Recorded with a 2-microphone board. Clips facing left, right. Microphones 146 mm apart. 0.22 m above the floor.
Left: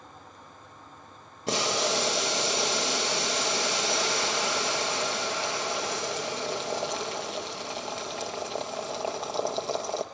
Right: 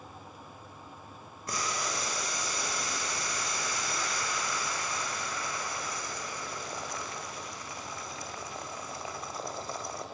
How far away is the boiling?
About 2.5 m.